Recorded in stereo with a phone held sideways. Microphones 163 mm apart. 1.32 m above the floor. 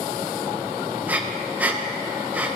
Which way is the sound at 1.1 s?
10° right (ahead or behind).